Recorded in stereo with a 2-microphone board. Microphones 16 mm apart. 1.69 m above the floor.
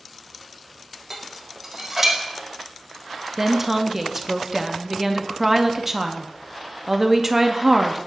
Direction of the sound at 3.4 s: 20° right (ahead or behind).